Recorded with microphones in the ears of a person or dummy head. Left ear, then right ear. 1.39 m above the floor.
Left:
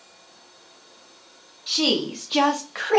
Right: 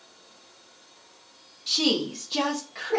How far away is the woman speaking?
About 1.0 m.